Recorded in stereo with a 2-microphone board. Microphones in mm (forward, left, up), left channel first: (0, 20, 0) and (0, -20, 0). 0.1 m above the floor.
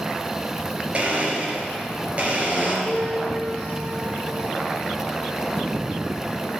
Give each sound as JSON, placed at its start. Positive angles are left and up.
{"t": 0.9, "sound": "a blender", "side_deg": -35, "distance_m": 1.8}
{"t": 2.9, "sound": "a piano", "side_deg": -20, "distance_m": 1.2}